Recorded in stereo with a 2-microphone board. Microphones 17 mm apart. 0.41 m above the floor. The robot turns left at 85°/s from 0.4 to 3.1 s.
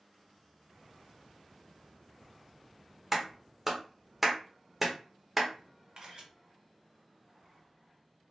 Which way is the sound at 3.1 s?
10° right (ahead or behind).